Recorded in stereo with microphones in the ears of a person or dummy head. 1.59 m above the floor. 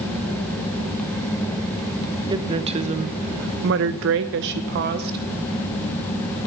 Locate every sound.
2.3 s a woman speaking: 25° right (ahead or behind), 1.2 m; by 5.2 s 55° right (ahead or behind), 1.2 m